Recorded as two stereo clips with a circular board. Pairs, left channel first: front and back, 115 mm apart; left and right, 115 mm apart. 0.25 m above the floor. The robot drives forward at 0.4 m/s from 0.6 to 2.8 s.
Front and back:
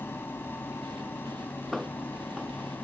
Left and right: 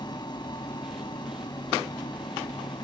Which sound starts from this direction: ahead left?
An aircraft, at 0.0 s.